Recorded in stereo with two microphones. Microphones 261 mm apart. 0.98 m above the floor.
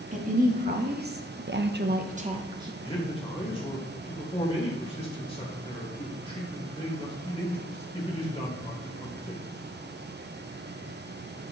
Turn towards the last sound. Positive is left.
turn(degrees=20)  # may be behind; listen again after turning